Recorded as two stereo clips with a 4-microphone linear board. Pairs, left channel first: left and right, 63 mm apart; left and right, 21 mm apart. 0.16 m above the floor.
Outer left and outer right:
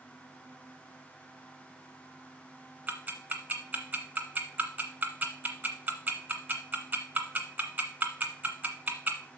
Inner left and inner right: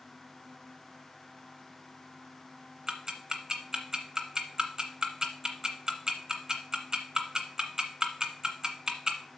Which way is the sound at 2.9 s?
25° right (ahead or behind).